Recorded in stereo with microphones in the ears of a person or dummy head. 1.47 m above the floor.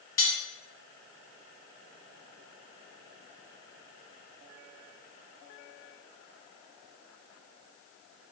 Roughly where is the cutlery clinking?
Centre.